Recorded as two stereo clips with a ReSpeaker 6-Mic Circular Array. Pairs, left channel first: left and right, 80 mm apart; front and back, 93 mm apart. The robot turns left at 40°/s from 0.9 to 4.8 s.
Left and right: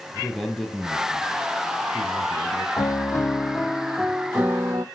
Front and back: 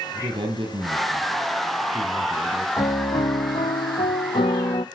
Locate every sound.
0.1 s a man speaking: straight behind, 3 m; by 2.7 s 110° left, 3 m
2.8 s a piano: 45° left, 0.6 m; by 4.8 s 35° right, 0.6 m